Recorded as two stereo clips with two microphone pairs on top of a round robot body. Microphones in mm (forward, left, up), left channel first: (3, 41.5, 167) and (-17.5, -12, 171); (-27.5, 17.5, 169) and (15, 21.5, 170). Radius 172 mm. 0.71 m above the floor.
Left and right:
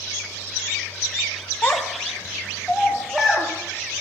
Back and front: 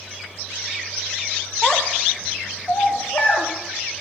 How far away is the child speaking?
About 1.0 m.